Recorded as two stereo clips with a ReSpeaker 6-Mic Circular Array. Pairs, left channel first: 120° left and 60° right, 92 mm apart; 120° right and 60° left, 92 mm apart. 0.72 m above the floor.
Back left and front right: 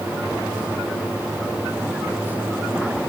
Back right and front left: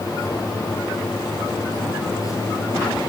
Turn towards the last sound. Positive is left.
No sound to turn to.